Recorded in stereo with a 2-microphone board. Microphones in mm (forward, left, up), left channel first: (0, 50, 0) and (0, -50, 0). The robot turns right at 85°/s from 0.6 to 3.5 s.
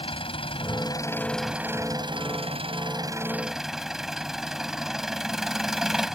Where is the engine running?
110° left; by 6.2 s 5° right.